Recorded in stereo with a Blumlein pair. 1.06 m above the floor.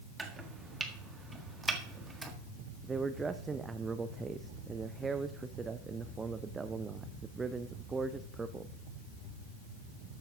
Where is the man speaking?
15° right, 0.6 m.